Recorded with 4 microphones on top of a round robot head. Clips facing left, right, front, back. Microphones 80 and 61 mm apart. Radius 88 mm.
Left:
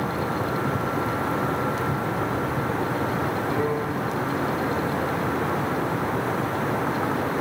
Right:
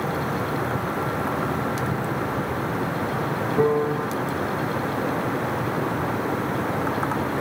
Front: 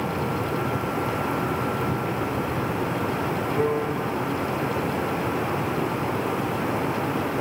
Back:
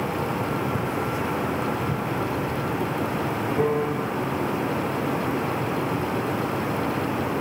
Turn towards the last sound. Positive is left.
turn(degrees=-100)